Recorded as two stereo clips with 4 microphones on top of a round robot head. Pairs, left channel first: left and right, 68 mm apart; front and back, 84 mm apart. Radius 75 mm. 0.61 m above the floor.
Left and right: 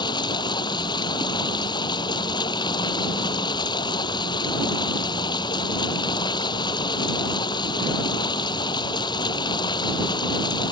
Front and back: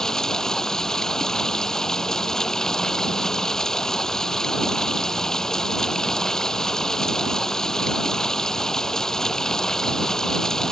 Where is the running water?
85° left.